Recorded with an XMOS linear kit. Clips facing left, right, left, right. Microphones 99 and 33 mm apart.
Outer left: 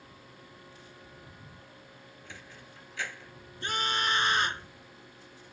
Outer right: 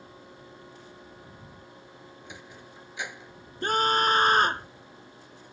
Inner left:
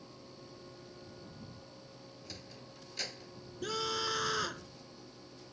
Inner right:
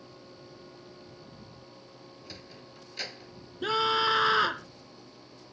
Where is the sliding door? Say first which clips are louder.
Outer right 2 dB, inner right 3 dB; 15° right (ahead or behind).